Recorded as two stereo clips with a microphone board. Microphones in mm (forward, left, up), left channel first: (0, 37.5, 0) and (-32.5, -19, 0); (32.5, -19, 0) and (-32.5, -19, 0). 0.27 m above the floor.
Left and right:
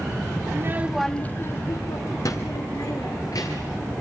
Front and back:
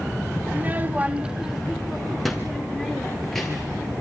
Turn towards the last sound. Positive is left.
turn(degrees=85)